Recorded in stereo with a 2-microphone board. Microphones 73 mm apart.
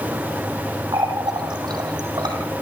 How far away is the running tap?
About 4.5 m.